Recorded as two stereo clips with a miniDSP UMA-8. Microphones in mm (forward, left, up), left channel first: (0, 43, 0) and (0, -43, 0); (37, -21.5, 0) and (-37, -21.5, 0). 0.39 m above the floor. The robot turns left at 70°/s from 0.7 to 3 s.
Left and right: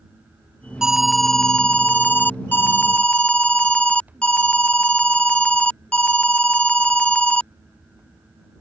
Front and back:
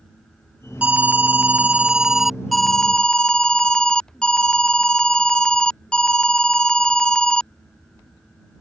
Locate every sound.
0.8 s an alarm: 160° right; by 7.5 s 50° left